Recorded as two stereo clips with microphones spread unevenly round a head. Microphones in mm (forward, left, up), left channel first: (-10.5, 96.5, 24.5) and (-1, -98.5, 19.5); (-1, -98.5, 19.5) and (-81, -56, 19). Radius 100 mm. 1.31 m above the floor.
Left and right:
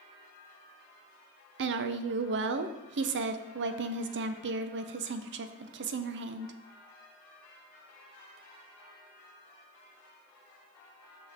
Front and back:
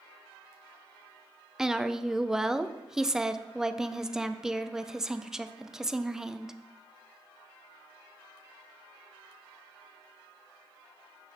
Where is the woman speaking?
125° right, 0.5 m.